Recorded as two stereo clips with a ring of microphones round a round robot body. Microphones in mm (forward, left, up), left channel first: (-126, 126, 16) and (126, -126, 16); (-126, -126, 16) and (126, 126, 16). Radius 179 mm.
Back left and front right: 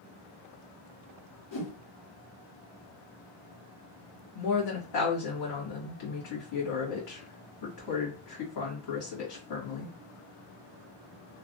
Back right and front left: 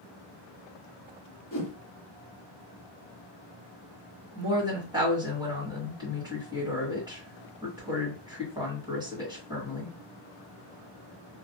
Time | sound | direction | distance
1.5 | a whoosh | 160° left | 1.5 m
4.3 | a woman speaking | 125° left | 2.0 m